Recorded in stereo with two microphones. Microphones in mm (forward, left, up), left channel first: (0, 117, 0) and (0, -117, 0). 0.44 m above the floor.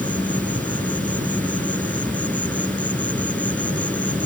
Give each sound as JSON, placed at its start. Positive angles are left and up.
{"t": 0.0, "sound": "an insect", "side_deg": 5}